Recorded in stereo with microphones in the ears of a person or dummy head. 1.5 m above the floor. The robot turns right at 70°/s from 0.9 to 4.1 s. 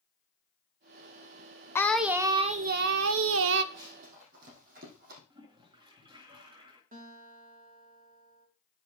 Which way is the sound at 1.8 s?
165° left.